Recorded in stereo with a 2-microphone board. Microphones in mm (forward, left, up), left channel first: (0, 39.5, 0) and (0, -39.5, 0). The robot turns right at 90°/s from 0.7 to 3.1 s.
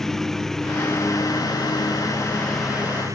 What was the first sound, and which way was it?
A lawn mower, 5° left (ahead or behind).